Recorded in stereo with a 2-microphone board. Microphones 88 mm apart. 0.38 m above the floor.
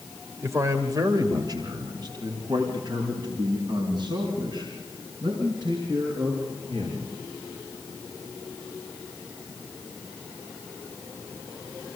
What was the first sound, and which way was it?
A man speaking, 30° right (ahead or behind).